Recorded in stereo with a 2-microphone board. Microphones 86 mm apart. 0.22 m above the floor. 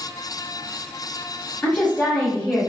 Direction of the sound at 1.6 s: 10° left (ahead or behind).